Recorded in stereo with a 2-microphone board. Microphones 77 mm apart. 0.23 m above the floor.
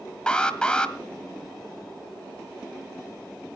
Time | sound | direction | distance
0.3 | an alarm | 10° left (ahead or behind) | 1.3 m